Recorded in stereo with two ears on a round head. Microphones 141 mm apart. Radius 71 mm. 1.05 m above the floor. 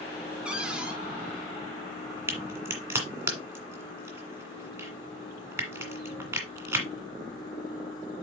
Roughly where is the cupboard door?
Centre.